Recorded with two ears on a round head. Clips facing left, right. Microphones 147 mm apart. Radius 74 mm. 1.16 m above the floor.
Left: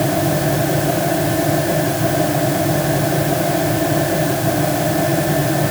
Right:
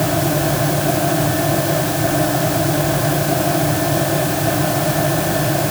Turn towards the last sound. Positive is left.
No sound to turn to.